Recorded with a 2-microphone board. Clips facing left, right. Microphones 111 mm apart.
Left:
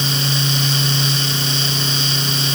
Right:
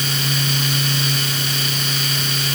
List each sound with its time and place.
Only background noise.